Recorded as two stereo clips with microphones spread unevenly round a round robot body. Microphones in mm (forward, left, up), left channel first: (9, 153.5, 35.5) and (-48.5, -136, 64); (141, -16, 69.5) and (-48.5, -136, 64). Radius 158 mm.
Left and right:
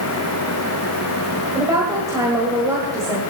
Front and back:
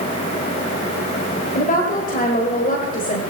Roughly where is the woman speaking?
Ahead.